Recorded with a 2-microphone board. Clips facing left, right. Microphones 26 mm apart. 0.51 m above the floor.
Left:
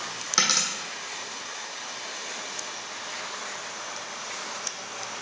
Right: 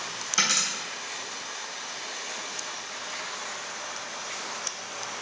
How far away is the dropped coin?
About 1.5 m.